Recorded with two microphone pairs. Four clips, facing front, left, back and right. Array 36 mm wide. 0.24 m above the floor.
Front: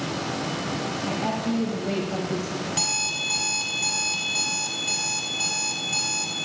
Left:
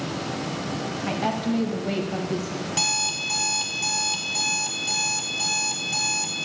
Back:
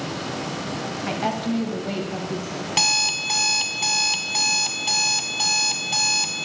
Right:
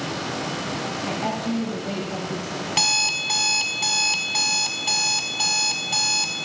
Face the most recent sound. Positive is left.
turn(degrees=-135)